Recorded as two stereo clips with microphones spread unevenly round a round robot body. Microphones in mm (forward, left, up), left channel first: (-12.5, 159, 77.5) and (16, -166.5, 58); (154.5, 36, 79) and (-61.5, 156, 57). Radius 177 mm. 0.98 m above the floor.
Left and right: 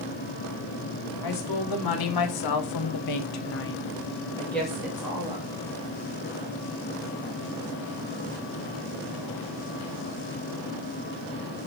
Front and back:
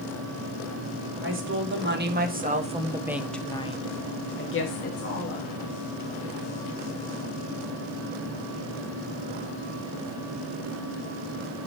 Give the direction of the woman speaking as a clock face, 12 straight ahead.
8 o'clock.